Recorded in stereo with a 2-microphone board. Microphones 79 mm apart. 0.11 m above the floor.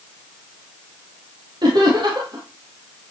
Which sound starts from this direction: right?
Laughter, at 1.6 s.